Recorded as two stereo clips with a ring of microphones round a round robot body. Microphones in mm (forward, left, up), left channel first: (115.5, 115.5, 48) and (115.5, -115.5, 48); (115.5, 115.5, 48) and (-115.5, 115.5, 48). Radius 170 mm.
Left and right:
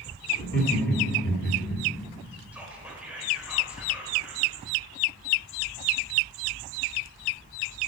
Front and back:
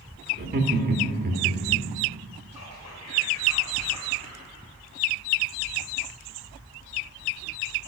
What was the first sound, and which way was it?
Laughter, 140° left.